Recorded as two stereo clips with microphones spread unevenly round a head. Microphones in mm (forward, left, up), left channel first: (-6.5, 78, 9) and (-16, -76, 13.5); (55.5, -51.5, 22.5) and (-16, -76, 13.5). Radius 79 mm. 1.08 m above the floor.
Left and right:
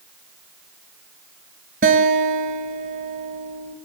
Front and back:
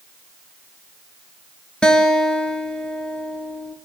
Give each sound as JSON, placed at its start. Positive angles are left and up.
{"t": 1.8, "sound": "a guitar", "azimuth_deg": -60, "distance_m": 3.0}